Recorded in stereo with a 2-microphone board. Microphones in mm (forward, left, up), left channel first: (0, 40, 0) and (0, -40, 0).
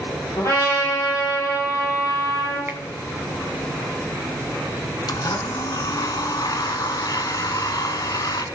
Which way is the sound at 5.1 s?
55° left (ahead or behind).